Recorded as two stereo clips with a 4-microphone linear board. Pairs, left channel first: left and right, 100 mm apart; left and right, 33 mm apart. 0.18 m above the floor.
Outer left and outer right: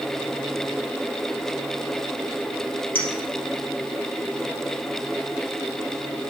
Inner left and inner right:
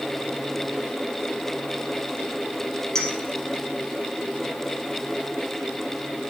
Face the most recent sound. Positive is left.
turn(degrees=15)  # may be behind; listen again after turning